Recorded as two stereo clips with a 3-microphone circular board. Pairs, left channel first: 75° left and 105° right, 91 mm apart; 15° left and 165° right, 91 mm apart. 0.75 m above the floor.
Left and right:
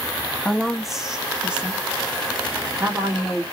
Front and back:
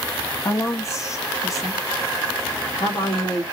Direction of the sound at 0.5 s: 5° right.